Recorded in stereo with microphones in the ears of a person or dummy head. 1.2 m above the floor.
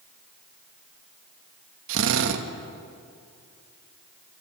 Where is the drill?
70° right (ahead or behind), 1.7 m.